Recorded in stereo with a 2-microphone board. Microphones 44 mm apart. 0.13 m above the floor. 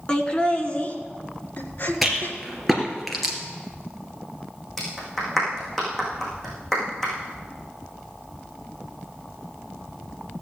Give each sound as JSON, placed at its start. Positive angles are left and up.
{"t": 0.1, "sound": "laughter", "side_deg": 20, "distance_m": 1.6}
{"t": 2.0, "sound": "a rattle", "side_deg": 0, "distance_m": 2.5}
{"t": 4.8, "sound": "a clap", "side_deg": 10, "distance_m": 5.5}